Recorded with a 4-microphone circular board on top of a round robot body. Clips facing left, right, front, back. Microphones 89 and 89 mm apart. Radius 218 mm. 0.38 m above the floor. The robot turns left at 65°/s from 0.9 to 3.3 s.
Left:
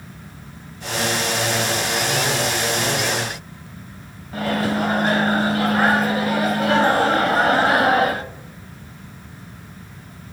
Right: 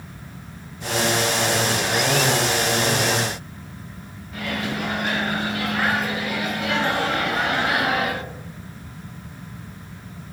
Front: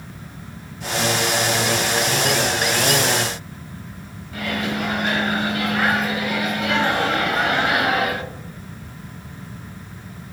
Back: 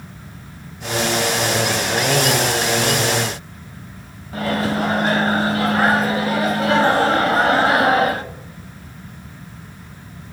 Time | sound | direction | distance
4.3 | a microwave | 135° left | 0.7 m